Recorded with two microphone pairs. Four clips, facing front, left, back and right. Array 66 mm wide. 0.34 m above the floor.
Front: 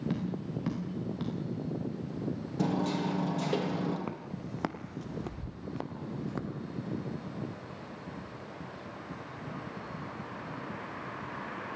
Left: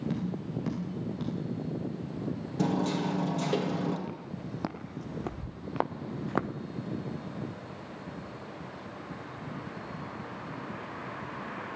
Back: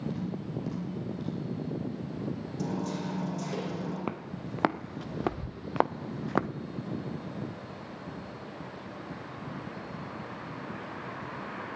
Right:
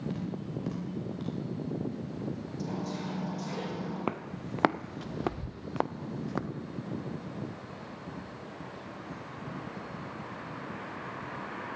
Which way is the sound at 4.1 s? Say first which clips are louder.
Right 4 dB, back 3 dB; 115° right.